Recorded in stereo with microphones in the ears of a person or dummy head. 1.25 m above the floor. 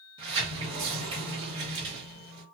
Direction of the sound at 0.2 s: 30° right (ahead or behind).